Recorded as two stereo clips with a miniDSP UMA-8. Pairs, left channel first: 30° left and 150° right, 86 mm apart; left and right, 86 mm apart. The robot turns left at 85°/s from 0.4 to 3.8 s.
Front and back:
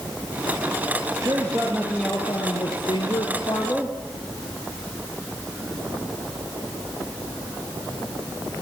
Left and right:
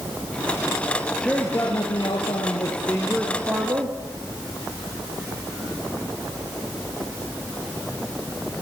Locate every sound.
1.2 s a man speaking: 170° left, 2.5 m; by 4.0 s 50° right, 2.5 m